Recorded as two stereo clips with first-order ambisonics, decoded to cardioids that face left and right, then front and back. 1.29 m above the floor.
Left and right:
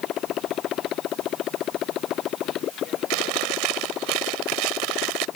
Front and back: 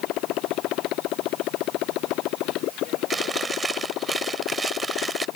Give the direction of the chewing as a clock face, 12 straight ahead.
3 o'clock.